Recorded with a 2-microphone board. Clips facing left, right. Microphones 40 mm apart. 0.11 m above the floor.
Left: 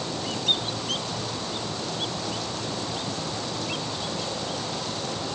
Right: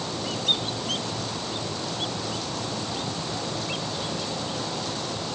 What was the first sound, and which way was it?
Only background noise.